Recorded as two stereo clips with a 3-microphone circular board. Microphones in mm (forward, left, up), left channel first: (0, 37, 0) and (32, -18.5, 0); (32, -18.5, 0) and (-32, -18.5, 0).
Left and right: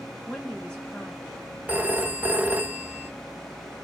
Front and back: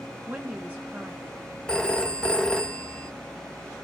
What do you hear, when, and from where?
0.3 s a woman speaking: 165° left, 1.1 m
1.7 s a phone ringing: 60° right, 0.5 m